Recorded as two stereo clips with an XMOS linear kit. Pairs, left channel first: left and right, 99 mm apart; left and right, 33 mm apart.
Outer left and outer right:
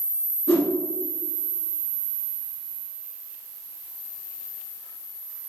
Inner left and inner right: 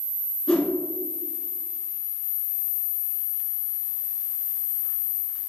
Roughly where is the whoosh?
Left.